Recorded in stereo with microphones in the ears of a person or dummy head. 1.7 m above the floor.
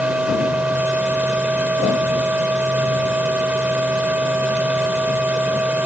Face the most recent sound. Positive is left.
turn(degrees=-10)  # may be behind; listen again after turning